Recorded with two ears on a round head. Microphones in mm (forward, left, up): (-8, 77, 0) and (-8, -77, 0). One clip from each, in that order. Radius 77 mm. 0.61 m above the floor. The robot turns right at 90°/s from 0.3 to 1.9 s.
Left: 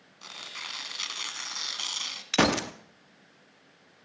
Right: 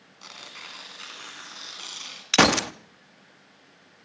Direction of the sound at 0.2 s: Straight ahead.